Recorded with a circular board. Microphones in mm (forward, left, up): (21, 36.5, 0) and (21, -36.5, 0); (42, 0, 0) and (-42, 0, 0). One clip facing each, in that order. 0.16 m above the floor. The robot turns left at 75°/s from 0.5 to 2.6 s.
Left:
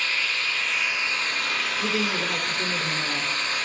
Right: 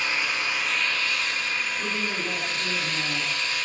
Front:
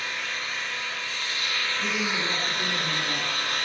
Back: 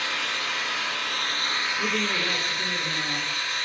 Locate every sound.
0.0 s an engine running: 165° right, 2 m; by 3.7 s 40° left, 2 m
1.8 s a woman speaking: 150° left, 2.5 m; by 3.3 s 90° left, 2.5 m